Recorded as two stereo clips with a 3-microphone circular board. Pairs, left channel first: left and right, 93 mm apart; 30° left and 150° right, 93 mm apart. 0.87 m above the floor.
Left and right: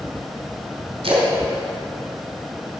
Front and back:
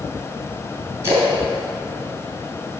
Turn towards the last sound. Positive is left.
turn(degrees=-90)